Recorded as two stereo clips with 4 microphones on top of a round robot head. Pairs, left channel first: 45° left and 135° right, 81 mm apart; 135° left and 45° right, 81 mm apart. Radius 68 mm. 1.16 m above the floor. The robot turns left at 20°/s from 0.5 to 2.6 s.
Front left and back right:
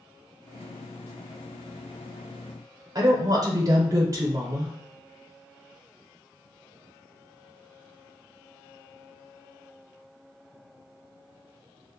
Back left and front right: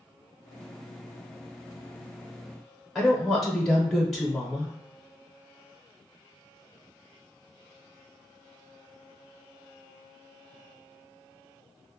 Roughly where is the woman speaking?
Behind right.